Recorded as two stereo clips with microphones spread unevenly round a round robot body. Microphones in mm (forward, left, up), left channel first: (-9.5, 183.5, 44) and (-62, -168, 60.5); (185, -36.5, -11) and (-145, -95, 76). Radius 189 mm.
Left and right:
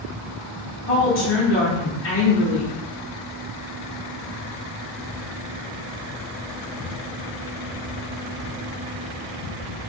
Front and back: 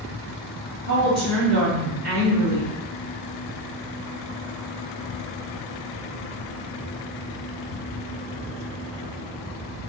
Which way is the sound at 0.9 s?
120° left.